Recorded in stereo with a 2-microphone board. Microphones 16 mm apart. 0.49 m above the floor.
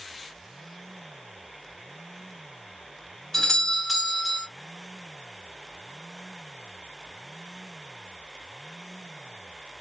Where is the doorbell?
25° left (ahead or behind), 1.8 m.